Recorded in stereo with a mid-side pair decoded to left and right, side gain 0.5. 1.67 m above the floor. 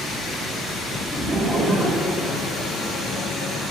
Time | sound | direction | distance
1.1 | laughter | 5° right | 1.5 m